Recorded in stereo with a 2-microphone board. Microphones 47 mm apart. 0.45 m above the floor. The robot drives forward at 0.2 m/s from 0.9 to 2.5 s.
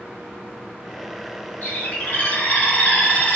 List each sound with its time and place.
1.6 s a bird: 40° left (ahead or behind), 1.0 m; by 3.4 s 35° left (ahead or behind), 1.1 m